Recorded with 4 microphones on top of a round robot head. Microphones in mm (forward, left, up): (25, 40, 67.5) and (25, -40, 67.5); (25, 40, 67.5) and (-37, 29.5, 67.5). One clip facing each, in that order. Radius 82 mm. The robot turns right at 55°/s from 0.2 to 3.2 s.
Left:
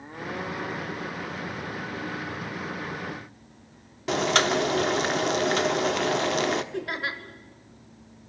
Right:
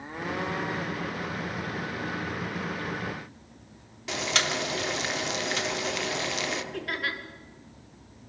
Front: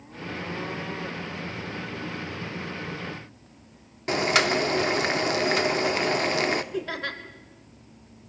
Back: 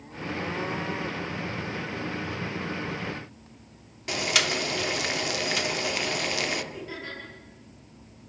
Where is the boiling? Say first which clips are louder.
Left 7 dB, front 5 dB; 55° left, 1.5 m.